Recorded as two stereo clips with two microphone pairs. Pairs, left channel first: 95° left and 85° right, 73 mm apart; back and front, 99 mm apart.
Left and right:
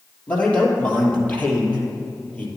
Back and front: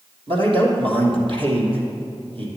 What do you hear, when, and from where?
0.3 s a man speaking: 20° left, 3 m